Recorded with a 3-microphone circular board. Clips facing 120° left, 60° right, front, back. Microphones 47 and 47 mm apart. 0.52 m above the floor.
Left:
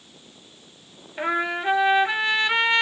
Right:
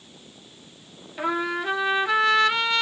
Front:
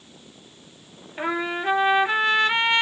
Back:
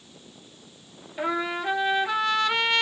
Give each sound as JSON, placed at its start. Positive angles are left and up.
{"t": 1.2, "sound": "a trumpet", "azimuth_deg": 60, "distance_m": 1.4}